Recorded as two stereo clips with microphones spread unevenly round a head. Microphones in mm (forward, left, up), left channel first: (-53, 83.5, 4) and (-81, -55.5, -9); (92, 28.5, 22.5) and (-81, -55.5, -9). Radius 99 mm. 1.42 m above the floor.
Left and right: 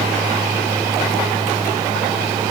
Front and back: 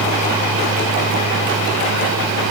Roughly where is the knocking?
I don't hear knocking.